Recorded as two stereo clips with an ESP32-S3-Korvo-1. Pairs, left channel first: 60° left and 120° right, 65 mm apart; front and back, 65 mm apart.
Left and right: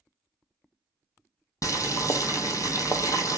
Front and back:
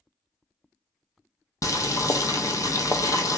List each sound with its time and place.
1.6 s boiling: 30° left, 0.7 m